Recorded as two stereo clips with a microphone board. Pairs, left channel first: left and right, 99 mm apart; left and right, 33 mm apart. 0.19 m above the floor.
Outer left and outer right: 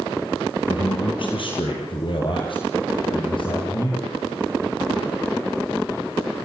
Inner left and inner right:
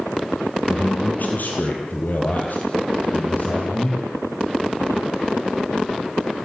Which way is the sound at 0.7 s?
60° left (ahead or behind).